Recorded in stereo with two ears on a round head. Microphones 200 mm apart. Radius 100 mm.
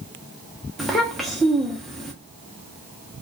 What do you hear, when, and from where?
0.8 s a child speaking: centre (ahead or behind), 0.5 m